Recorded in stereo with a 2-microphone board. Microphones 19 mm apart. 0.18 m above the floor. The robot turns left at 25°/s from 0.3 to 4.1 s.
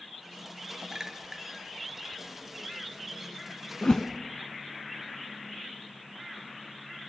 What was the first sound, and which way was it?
A clink, 30° right (ahead or behind).